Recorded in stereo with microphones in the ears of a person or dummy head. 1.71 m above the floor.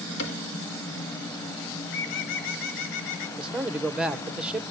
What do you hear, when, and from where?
0.2 s a cupboard door: 75° left (ahead or behind), 4.5 m
1.8 s a bird: 70° left (ahead or behind), 0.9 m
3.4 s a man speaking: 5° right (ahead or behind), 1.1 m